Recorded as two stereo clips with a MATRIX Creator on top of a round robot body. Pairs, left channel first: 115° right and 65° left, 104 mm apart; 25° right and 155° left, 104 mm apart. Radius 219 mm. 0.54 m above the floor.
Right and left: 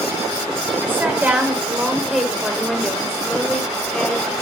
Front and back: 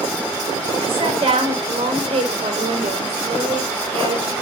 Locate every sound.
0.8 s a woman speaking: 135° left, 3 m; by 4.3 s 170° left, 3.5 m